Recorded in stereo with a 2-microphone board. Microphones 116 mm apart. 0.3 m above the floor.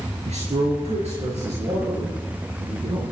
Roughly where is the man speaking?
Right.